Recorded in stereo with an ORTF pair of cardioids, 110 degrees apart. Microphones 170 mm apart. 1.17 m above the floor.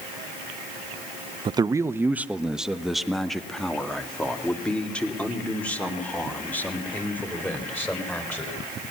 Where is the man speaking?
30° right, 0.6 m; by 8.6 s 10° left, 5.5 m.